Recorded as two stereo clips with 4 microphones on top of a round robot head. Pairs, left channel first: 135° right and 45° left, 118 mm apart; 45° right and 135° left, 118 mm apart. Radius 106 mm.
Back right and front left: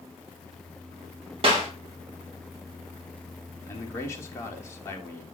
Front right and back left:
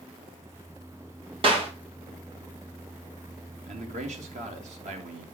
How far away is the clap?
About 3.5 m.